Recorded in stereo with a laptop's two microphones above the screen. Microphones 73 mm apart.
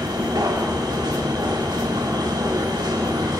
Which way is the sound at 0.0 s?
85° right.